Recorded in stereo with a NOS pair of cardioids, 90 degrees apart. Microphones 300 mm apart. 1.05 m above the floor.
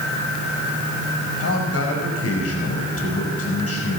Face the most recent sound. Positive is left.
turn(degrees=50)